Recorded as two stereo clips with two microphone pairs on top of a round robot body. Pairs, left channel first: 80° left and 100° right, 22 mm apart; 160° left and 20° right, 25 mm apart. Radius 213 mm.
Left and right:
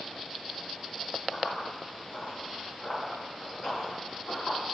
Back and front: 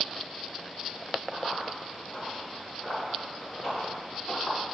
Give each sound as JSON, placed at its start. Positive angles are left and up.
{"t": 1.3, "sound": "running footsteps", "azimuth_deg": 80, "distance_m": 1.2}